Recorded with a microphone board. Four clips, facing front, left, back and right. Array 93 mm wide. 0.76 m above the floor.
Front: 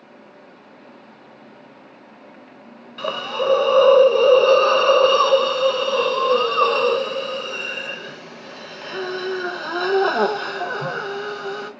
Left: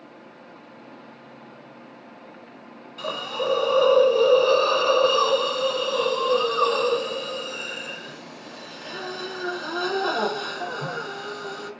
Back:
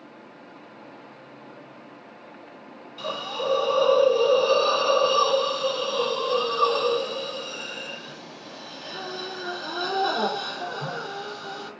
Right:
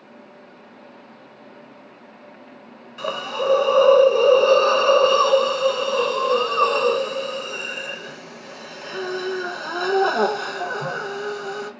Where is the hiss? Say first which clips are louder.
Right 3 dB, front 6 dB; 25° right, 0.6 m.